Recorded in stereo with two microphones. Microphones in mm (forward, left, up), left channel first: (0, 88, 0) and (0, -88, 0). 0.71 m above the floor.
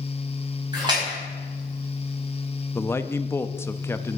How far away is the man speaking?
About 0.6 m.